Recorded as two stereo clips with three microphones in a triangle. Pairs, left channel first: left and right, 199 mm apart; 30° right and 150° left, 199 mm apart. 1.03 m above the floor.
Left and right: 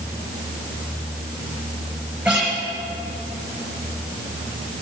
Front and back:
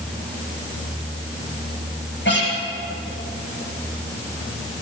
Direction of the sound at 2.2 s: Straight ahead.